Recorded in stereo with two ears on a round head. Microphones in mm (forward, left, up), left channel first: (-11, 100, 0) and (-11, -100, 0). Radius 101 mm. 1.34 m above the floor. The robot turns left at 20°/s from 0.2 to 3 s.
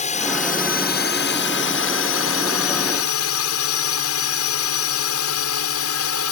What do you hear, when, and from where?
0.0 s a drone: 145° left; by 6.3 s 90° left